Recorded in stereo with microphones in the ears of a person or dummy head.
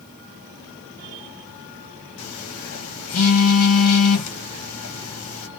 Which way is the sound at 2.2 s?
70° left (ahead or behind).